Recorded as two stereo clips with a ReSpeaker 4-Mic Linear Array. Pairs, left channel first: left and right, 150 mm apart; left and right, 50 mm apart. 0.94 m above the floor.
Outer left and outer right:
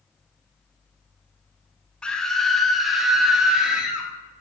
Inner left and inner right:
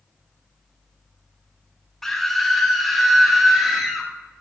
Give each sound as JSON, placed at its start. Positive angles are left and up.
{"t": 2.0, "sound": "a scream", "side_deg": 5, "distance_m": 1.0}